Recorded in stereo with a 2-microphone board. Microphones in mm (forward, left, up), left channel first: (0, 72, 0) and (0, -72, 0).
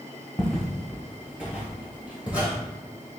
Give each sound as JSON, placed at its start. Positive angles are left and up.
{"t": 0.4, "sound": "footsteps", "side_deg": 0, "distance_m": 1.1}